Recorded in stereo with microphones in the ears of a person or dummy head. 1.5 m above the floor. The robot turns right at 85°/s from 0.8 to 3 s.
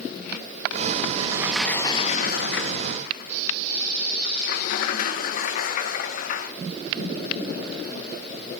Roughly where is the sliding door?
Ahead right.